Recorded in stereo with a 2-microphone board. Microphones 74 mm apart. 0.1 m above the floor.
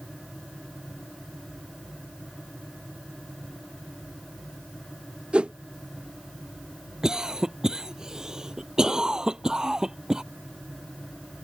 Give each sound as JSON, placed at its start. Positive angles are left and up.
{"t": 5.3, "sound": "a whoosh", "side_deg": -15}
{"t": 7.0, "sound": "a cough", "side_deg": -10}